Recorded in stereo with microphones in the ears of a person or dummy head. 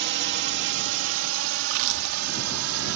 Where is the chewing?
60° right (ahead or behind).